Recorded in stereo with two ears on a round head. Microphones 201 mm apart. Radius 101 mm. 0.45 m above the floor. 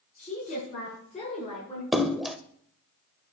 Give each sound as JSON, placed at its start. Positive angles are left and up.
{"t": 0.2, "sound": "a woman speaking", "side_deg": 35, "distance_m": 5.0}
{"t": 1.9, "sound": "a splash", "side_deg": 0, "distance_m": 0.6}